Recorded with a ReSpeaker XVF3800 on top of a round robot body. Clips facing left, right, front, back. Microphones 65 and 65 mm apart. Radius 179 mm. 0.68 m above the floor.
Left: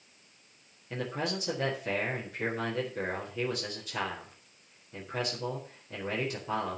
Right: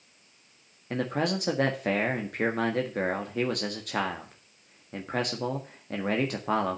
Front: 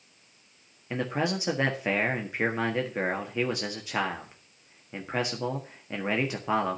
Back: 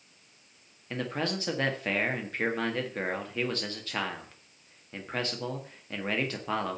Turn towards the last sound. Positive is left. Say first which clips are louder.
# right 6 dB, front 3 dB
turn(degrees=-75)